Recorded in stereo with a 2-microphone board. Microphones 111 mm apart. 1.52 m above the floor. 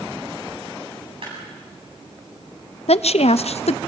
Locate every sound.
1.2 s a clap: 60° right (ahead or behind), 8.5 m
2.9 s a woman speaking: 75° left (ahead or behind), 0.6 m